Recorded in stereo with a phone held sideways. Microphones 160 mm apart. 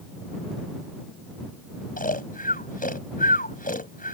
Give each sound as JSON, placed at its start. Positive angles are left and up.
{"t": 2.0, "sound": "snoring", "side_deg": 60}